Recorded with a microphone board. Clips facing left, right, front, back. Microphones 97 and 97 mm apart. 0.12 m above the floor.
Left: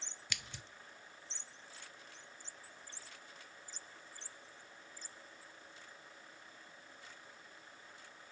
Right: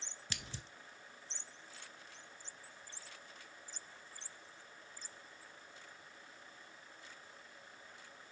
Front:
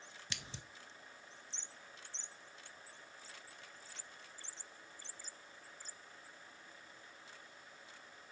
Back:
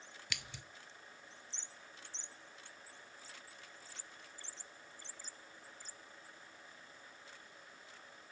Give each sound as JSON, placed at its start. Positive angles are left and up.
{"t": 0.3, "sound": "scissors", "azimuth_deg": -45, "distance_m": 0.5}